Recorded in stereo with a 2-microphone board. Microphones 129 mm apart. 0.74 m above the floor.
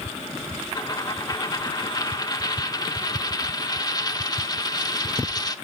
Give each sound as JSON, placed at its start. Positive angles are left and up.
{"t": 0.8, "sound": "a dropped coin", "side_deg": 30, "distance_m": 0.5}